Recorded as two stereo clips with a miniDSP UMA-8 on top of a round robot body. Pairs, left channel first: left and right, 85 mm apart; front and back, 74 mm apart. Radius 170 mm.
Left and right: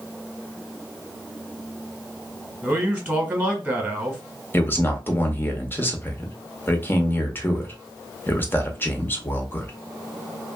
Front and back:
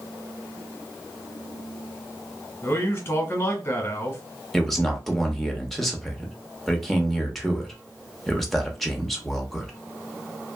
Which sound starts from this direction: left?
A man speaking, at 4.5 s.